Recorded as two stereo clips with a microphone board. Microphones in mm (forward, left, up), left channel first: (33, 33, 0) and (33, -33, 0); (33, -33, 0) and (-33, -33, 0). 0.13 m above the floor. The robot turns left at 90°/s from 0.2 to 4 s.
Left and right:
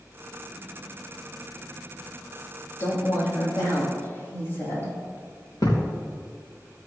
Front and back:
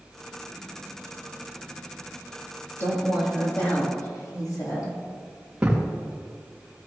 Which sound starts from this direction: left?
A thud, at 5.6 s.